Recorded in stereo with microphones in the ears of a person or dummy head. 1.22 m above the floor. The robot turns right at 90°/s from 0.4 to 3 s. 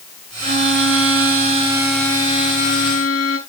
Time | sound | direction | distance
0.4 | a violin | 135° right | 8 m